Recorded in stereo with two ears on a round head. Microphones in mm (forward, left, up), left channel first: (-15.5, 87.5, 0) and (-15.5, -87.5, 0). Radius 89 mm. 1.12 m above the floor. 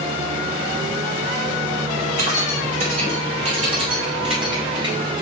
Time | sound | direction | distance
2.2 | keys jangling | 45° right (ahead or behind) | 4 m